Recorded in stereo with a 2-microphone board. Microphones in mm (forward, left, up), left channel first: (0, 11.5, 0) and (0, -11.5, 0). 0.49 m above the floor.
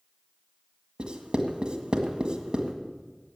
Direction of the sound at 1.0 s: 40° right (ahead or behind).